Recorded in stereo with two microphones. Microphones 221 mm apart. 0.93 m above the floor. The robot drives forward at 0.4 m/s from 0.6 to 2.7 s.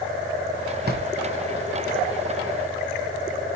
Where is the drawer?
45° right (ahead or behind), 0.6 m; by 1.1 s 40° right (ahead or behind), 0.6 m.